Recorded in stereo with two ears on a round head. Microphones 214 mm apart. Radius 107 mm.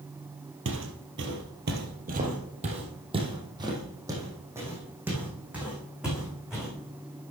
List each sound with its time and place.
0.7 s footsteps: 55° right (ahead or behind), 2 m; by 6.7 s centre (ahead or behind), 6 m